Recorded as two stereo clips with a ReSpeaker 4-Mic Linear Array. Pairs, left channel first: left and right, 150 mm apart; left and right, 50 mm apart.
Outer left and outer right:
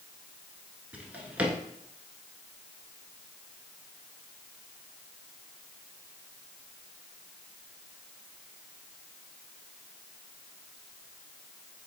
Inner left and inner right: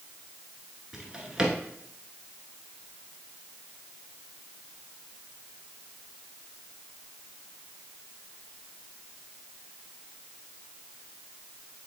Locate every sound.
0.9 s a drawer: 10° right (ahead or behind), 1.3 m